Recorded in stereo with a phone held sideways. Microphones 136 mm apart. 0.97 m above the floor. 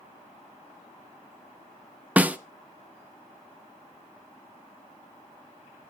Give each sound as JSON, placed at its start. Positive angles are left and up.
{"t": 2.2, "sound": "a snare drum", "side_deg": -10, "distance_m": 0.5}